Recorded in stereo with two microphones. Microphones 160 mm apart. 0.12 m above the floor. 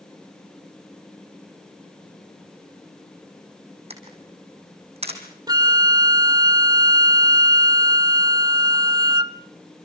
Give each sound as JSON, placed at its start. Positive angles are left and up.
{"t": 3.9, "sound": "a camera shutter", "side_deg": -40, "distance_m": 4.0}
{"t": 5.5, "sound": "a flute", "side_deg": -25, "distance_m": 0.5}